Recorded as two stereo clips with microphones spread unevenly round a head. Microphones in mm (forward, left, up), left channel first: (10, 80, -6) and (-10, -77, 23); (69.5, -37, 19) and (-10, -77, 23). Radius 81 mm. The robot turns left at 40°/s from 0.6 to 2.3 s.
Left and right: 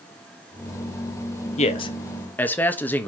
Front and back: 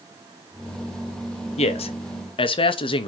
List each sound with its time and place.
1.6 s a man speaking: 30° left, 0.9 m; by 3.1 s 5° left, 0.9 m